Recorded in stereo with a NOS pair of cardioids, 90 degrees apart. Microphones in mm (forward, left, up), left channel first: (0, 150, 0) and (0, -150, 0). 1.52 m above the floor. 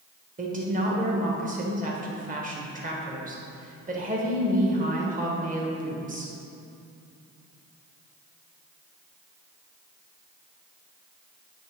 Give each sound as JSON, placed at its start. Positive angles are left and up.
{"t": 0.4, "sound": "a woman speaking", "azimuth_deg": -25, "distance_m": 1.8}